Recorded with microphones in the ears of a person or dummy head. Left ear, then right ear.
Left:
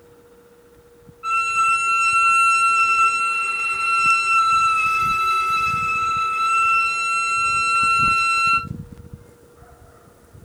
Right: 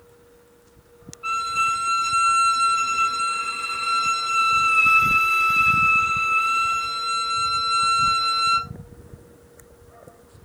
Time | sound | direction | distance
1.2 | a violin | centre (ahead or behind) | 1.5 m